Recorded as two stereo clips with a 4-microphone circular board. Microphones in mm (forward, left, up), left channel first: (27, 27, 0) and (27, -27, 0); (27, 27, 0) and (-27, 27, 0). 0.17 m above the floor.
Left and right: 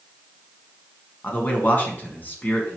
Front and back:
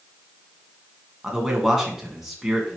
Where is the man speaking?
100° left, 1.8 m.